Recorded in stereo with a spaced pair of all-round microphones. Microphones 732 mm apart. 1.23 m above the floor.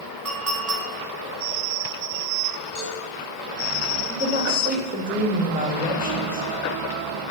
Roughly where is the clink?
Right.